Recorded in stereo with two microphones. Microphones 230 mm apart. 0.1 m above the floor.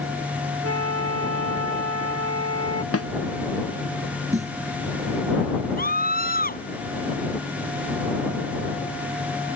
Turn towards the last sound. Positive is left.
turn(degrees=40)  # may be behind; listen again after turning